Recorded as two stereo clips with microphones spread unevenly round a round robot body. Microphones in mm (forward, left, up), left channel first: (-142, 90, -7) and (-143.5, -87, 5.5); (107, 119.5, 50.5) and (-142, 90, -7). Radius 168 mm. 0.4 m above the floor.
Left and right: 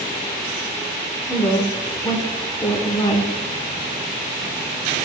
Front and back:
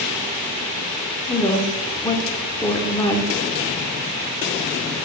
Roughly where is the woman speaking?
Left.